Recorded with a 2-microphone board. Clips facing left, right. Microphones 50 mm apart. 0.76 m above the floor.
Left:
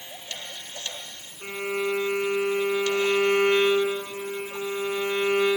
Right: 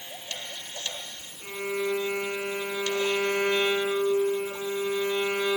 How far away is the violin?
About 3.5 m.